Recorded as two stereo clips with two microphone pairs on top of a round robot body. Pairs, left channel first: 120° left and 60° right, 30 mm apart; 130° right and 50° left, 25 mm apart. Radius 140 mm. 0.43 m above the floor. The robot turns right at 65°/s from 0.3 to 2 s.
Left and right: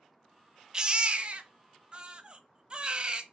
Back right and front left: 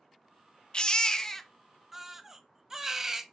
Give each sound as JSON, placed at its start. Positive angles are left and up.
{"t": 0.7, "sound": "a baby crying", "azimuth_deg": -110, "distance_m": 0.5}